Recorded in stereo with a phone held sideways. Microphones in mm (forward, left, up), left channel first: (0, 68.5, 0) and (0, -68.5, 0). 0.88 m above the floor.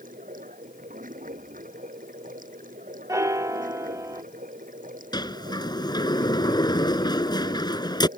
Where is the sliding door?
30° left (ahead or behind).